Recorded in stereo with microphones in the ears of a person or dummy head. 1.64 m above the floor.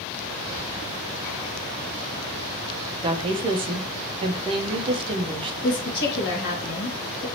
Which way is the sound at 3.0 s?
30° right (ahead or behind).